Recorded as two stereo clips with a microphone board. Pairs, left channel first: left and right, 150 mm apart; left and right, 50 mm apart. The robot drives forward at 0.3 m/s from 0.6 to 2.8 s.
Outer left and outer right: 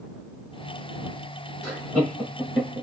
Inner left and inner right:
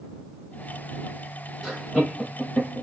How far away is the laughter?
About 1.2 m.